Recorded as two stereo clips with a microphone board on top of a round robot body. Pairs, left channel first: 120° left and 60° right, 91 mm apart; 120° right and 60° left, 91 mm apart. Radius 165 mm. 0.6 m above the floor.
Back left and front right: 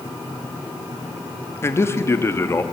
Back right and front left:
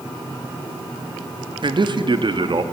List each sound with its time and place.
1.6 s a man speaking: 65° left, 1.4 m